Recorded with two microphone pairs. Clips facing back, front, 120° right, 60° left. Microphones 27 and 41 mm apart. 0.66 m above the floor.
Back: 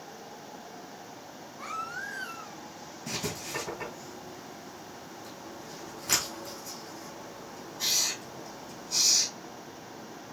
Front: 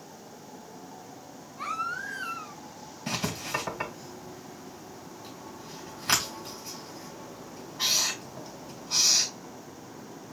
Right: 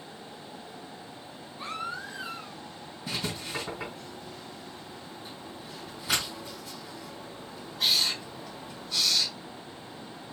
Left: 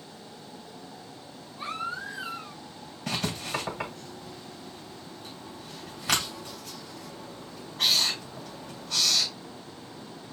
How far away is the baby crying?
About 2.5 m.